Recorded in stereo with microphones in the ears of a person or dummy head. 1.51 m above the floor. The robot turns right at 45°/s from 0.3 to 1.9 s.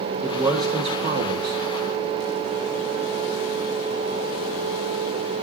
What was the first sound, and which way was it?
A man speaking, 175° right.